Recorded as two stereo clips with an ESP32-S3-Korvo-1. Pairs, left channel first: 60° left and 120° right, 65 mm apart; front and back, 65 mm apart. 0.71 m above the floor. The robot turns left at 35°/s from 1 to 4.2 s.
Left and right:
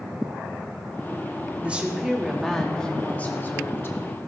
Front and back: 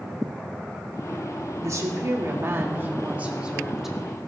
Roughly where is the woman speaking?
Behind.